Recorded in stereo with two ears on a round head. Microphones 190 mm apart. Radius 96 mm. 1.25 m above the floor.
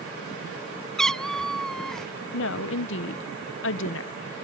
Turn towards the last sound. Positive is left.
turn(degrees=60)  # may be behind; listen again after turning